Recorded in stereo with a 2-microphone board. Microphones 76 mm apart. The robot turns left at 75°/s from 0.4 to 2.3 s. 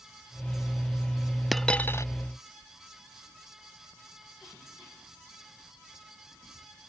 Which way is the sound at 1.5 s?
Straight behind.